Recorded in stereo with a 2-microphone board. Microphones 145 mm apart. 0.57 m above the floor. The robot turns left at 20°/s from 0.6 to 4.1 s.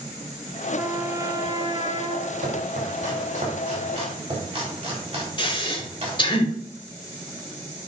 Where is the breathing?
35° left (ahead or behind), 1.1 m.